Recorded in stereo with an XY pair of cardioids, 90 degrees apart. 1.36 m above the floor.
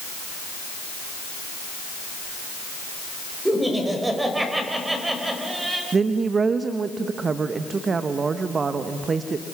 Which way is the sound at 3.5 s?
10° right.